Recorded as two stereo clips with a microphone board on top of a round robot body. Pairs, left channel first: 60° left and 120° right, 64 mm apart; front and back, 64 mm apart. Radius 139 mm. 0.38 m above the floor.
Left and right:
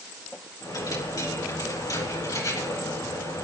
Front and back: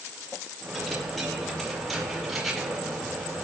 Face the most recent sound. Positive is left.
turn(degrees=90)